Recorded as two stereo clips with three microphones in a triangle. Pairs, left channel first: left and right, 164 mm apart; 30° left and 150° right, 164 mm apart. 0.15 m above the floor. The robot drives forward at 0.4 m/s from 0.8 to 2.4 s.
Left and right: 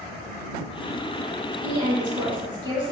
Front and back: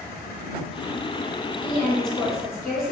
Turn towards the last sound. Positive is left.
turn(degrees=-65)